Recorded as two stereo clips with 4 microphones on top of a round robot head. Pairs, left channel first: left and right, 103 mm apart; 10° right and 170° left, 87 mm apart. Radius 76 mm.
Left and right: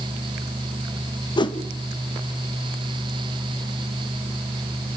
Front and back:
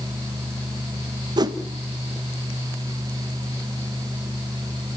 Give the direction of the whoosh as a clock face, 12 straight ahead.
8 o'clock.